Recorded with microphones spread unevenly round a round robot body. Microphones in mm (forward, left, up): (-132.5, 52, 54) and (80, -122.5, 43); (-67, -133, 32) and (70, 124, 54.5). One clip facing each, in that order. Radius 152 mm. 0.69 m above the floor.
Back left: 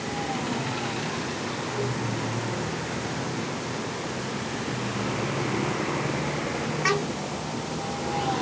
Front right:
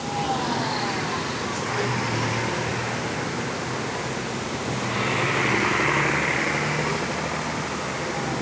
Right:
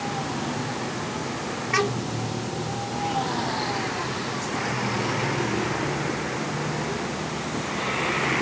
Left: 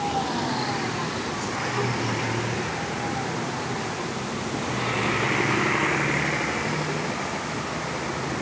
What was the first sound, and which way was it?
Only background noise.